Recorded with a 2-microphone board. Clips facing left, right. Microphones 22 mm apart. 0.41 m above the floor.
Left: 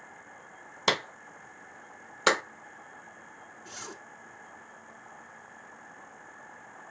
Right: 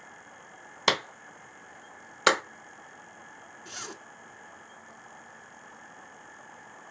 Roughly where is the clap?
Centre.